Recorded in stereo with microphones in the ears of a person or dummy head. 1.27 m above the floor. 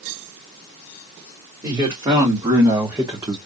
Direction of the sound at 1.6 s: 20° right (ahead or behind).